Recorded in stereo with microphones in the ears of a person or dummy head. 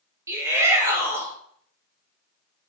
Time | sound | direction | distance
0.3 | a shout | 10° right (ahead or behind) | 0.9 m